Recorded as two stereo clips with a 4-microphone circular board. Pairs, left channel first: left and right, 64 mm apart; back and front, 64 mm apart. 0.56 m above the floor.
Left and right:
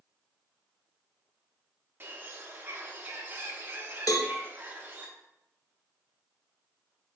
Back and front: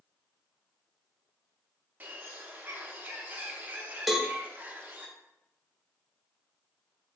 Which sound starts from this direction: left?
A cowbell, at 4.1 s.